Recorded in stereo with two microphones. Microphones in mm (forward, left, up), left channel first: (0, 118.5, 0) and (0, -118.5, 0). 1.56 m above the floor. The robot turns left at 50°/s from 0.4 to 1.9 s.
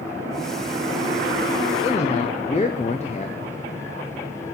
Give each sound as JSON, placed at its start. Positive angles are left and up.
{"t": 1.8, "sound": "a man speaking", "side_deg": 25, "distance_m": 0.5}